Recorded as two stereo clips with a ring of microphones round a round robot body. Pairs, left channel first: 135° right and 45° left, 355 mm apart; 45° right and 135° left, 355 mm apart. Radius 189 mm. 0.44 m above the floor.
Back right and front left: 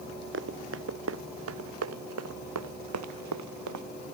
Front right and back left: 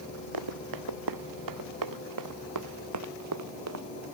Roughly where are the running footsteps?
Left.